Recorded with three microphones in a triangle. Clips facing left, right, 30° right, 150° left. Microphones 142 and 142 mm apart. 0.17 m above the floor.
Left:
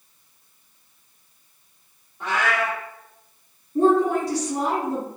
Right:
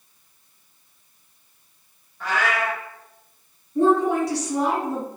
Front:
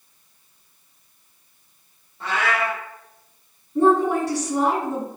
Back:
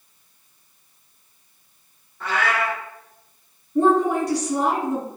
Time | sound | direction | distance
2.2 | a cat meowing | 25° left | 1.3 m
3.8 | a woman speaking | 55° left | 1.8 m